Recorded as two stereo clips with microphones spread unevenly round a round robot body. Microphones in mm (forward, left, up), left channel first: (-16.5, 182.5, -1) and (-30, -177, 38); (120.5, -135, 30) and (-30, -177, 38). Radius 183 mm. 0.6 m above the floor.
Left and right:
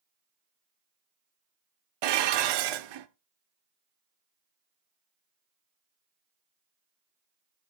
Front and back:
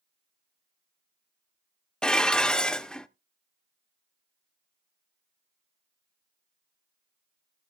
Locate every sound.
2.0 s dishes clattering: 70° right, 0.9 m